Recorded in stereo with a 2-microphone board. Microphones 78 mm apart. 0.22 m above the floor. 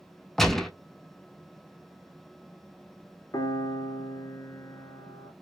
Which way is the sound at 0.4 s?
5° left (ahead or behind).